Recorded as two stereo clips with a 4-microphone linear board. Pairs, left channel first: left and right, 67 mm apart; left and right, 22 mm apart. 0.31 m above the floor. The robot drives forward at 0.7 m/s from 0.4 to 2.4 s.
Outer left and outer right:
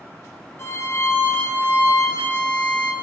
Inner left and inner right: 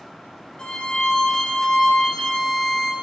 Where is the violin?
45° left (ahead or behind), 1.2 m; by 2.9 s 25° left (ahead or behind), 1.9 m.